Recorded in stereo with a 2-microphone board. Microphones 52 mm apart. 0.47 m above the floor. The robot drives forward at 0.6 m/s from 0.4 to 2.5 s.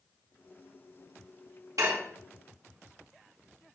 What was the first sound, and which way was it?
Dishes clattering, 70° right (ahead or behind).